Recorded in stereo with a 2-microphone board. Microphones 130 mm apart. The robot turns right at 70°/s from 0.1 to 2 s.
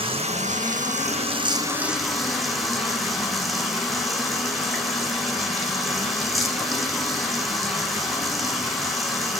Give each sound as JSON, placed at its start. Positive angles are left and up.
{"t": 0.0, "sound": "running water", "azimuth_deg": -135, "distance_m": 1.1}